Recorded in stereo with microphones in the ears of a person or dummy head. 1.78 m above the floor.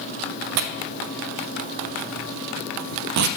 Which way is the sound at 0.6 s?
65° right (ahead or behind).